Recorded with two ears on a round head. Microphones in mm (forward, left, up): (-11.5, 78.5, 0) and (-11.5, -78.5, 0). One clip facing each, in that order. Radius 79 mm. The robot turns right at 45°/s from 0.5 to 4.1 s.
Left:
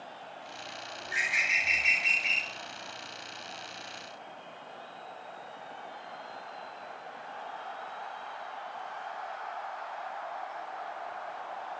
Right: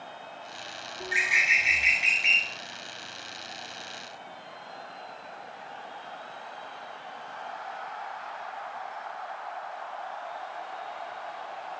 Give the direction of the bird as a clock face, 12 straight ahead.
4 o'clock.